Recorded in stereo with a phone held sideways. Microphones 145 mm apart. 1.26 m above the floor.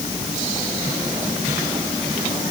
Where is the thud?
No thud in this recording.